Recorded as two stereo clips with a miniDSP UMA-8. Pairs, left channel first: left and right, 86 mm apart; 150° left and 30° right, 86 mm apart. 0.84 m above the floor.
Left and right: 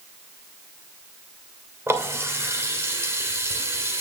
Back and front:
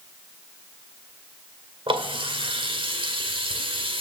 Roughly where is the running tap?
Ahead right.